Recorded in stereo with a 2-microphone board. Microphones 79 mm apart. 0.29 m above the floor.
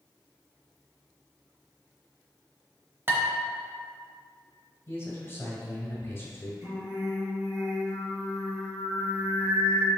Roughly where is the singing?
Right.